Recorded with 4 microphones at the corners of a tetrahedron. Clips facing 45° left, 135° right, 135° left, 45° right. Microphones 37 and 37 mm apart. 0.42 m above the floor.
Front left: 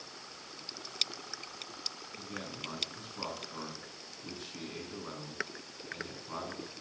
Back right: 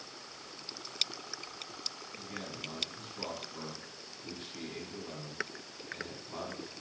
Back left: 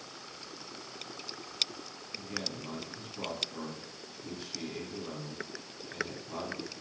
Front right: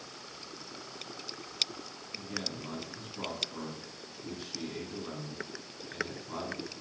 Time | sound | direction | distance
2.2 | a man speaking | 30° left | 4 m